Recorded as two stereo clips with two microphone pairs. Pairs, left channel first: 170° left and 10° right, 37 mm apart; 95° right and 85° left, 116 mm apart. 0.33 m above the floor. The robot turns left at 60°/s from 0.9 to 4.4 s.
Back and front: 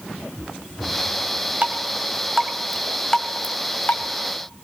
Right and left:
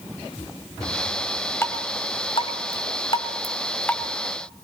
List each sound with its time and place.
1.6 s dripping: 30° right, 1.6 m; by 4.0 s 175° right, 1.6 m